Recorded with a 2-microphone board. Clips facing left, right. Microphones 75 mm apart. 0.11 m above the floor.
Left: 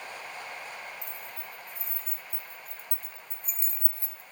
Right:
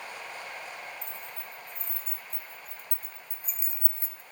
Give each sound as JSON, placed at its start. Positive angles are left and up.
{"t": 1.0, "sound": "keys jangling", "side_deg": 10, "distance_m": 4.0}